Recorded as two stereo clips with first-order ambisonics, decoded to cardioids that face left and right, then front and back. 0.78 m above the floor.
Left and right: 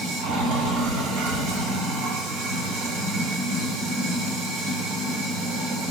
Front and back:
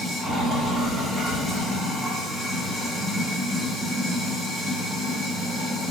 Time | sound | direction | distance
0.0 | running water | 105° right | 1.3 m